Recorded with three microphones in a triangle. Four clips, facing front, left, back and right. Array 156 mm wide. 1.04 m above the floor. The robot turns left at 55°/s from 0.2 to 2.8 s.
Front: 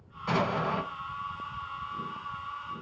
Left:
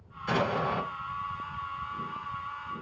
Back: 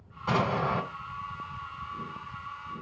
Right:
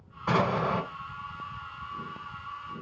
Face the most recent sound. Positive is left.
turn(degrees=110)